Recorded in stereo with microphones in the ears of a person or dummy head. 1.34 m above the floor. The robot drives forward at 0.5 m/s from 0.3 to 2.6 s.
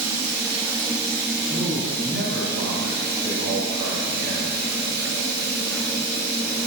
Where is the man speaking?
65° right (ahead or behind), 2.5 m; by 4.6 s 55° right (ahead or behind), 2.5 m.